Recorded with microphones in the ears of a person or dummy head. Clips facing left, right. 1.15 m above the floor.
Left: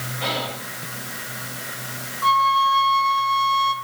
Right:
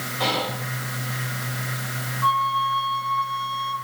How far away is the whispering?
About 3 m.